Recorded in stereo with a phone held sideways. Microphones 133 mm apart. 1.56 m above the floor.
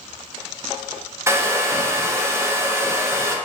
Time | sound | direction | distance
1.3 | a hair dryer | 20° right (ahead or behind) | 0.5 m